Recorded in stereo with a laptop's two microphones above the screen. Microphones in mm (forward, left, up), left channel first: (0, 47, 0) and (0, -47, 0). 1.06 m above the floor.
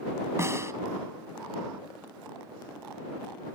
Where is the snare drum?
30° right (ahead or behind).